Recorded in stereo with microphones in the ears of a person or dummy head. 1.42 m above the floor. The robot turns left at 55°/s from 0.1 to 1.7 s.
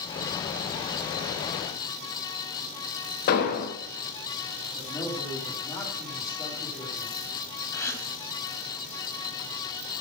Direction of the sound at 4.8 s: 20° left (ahead or behind).